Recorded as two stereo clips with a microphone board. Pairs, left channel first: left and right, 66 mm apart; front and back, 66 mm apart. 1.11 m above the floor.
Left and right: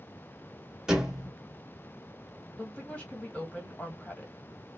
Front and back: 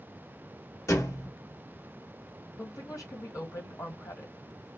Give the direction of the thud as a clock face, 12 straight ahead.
12 o'clock.